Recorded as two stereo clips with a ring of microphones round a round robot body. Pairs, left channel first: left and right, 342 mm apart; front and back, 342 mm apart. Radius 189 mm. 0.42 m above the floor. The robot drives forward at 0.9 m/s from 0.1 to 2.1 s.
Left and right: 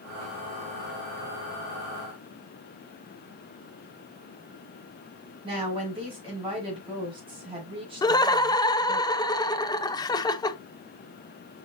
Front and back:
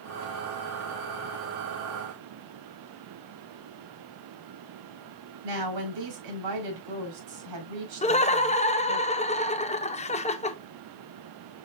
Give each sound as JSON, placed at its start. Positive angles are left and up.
{"t": 5.4, "sound": "a woman speaking", "azimuth_deg": -165, "distance_m": 5.5}
{"t": 8.0, "sound": "laughter", "azimuth_deg": 30, "distance_m": 0.7}